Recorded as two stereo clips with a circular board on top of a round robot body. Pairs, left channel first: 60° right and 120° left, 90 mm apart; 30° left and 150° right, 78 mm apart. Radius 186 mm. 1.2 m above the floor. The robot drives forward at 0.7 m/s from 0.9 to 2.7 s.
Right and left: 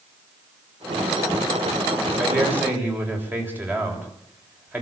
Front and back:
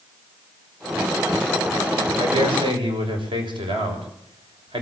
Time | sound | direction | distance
2.2 | a man speaking | 170° right | 6.5 m